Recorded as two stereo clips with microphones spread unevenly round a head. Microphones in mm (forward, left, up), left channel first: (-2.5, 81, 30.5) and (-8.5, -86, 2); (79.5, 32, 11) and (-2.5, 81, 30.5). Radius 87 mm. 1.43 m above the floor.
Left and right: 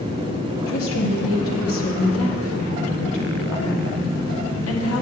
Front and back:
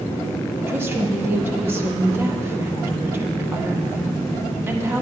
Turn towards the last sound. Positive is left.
turn(degrees=85)